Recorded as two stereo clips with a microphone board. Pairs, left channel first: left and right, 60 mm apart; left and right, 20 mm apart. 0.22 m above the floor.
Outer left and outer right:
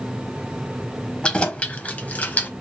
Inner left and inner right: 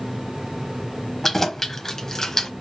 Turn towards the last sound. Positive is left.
turn(degrees=30)  # may be behind; listen again after turning